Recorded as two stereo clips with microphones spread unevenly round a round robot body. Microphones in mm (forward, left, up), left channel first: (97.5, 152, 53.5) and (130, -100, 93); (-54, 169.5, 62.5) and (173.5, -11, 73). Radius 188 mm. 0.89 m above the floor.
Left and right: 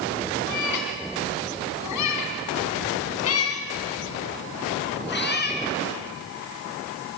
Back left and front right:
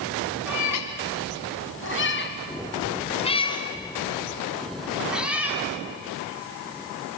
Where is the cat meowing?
120° left, 3 m; by 5.6 s 45° left, 4 m.